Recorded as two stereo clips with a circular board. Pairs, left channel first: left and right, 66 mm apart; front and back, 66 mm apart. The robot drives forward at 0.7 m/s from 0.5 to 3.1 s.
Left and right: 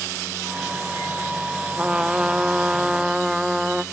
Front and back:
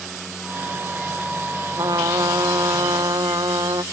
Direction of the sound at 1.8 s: 165° right.